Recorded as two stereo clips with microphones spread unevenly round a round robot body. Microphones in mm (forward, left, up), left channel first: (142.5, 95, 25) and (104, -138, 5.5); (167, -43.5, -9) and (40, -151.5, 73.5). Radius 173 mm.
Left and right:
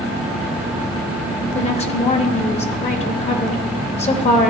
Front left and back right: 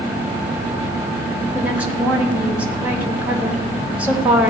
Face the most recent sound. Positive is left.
turn(degrees=70)